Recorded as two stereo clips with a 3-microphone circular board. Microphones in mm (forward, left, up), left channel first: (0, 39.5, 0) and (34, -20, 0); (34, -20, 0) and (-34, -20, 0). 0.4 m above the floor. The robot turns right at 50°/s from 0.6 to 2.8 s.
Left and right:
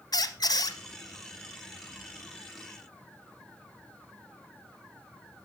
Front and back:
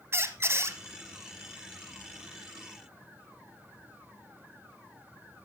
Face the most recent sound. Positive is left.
turn(degrees=-120)